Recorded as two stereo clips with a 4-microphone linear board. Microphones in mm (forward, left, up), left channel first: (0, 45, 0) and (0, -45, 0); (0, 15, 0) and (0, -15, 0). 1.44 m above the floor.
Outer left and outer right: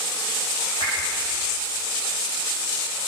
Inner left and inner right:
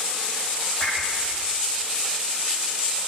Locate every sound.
0.8 s a whoosh: 55° left (ahead or behind), 9 m